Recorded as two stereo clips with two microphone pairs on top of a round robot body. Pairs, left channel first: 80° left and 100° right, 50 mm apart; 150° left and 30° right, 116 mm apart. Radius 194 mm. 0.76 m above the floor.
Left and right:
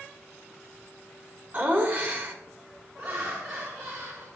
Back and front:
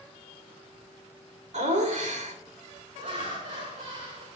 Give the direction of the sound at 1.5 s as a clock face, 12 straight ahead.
1 o'clock.